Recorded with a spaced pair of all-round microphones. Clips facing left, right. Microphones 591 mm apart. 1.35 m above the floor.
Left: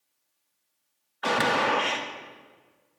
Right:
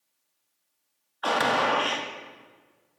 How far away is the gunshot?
About 1.3 m.